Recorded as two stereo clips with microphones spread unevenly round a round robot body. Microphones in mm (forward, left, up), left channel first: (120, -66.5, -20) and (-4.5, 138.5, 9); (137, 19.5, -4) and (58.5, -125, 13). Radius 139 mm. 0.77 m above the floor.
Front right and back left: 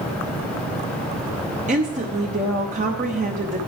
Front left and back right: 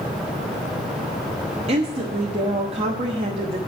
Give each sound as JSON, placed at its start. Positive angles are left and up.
{"t": 1.7, "sound": "a woman speaking", "azimuth_deg": 180, "distance_m": 0.8}